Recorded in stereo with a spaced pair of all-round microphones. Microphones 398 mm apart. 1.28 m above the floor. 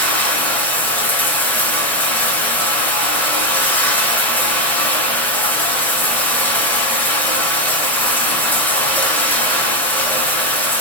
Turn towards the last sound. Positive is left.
turn(degrees=5)  # may be behind; listen again after turning